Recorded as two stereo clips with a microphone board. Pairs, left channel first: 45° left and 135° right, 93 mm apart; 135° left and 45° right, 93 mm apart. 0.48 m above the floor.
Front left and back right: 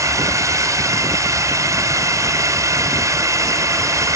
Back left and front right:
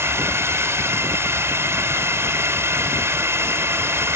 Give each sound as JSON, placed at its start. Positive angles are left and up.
{"t": 0.0, "sound": "a drone", "azimuth_deg": -95}